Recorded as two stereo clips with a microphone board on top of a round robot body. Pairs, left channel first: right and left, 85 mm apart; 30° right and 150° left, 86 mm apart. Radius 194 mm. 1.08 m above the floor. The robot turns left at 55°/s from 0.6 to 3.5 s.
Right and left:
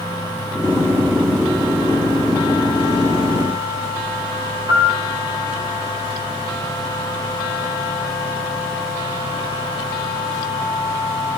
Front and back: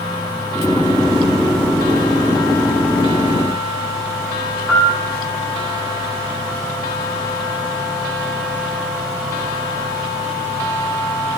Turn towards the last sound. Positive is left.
turn(degrees=55)